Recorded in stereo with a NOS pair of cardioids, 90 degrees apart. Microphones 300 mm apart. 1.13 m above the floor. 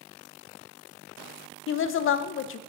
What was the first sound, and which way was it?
A woman speaking, 45° left.